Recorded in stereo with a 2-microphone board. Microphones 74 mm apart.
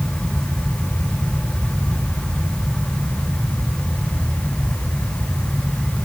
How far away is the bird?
I don't hear a bird.